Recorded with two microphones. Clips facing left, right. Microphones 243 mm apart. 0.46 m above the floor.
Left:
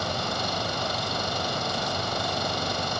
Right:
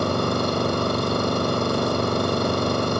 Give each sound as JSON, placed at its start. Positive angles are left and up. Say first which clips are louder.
{"t": 0.0, "sound": "an engine running", "louder": "right 10 dB", "side_deg": -60}